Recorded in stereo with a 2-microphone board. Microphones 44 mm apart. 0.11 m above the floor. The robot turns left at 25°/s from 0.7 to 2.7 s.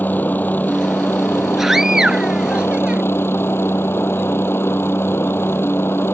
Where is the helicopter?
125° left; by 6.2 s 75° left.